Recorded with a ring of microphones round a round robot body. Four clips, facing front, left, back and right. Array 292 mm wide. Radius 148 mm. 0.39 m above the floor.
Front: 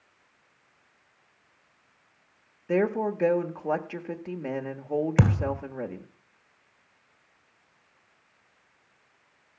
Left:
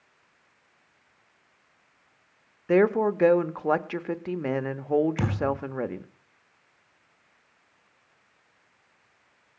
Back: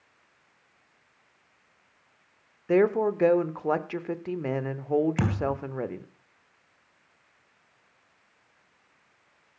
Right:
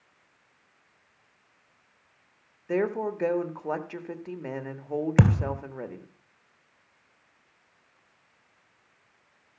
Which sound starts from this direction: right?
A thud, at 5.2 s.